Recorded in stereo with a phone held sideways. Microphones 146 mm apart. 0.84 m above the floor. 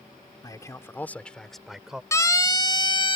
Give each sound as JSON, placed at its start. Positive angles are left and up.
{"t": 0.4, "sound": "a man speaking", "side_deg": 25}
{"t": 2.1, "sound": "a siren", "side_deg": 20}